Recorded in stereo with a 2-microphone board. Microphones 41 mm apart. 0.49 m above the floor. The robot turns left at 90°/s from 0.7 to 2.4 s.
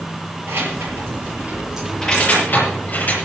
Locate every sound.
0.5 s keys jangling: 75° right (ahead or behind), 6 m; by 3.2 s 45° left (ahead or behind), 6 m